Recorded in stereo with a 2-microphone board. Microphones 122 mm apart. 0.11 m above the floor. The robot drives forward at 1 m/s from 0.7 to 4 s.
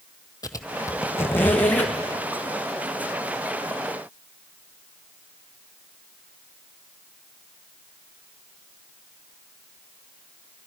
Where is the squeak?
30° left (ahead or behind), 0.8 m; by 2.0 s 10° left (ahead or behind), 1.9 m.